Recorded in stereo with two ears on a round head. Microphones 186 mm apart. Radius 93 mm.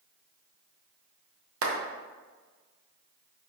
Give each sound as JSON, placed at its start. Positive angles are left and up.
{"t": 1.6, "sound": "a clap", "side_deg": -65, "distance_m": 0.9}